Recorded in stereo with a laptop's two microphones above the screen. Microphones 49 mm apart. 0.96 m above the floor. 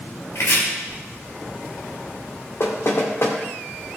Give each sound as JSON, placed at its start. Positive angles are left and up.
{"t": 0.3, "sound": "chopping", "side_deg": 65, "distance_m": 3.0}
{"t": 2.6, "sound": "knocking", "side_deg": 55, "distance_m": 1.6}